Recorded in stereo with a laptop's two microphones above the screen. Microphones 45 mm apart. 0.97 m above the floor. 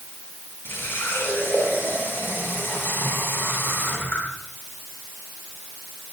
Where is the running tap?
55° left (ahead or behind), 10 m.